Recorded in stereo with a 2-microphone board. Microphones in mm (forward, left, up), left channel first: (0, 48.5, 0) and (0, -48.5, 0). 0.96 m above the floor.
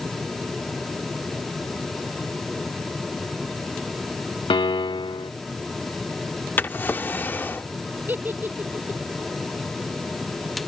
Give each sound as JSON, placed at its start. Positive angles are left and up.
{"t": 4.5, "sound": "a piano", "side_deg": 70}
{"t": 6.6, "sound": "a drawer", "side_deg": 20}
{"t": 8.1, "sound": "a giggle", "side_deg": -20}